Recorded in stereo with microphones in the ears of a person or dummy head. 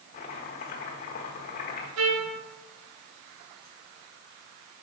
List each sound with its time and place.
0.1 s chopping: 35° left (ahead or behind), 1.3 m
2.0 s a trumpet: 85° right, 1.8 m